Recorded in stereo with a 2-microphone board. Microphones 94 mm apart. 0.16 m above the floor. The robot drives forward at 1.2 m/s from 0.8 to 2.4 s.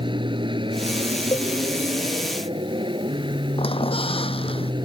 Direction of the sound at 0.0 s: 60° right (ahead or behind).